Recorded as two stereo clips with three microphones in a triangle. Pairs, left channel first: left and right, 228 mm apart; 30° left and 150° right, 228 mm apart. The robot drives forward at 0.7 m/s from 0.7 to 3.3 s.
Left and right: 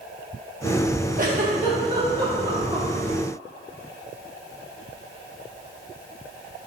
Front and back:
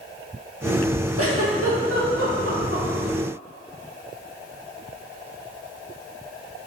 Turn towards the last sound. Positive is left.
turn(degrees=-160)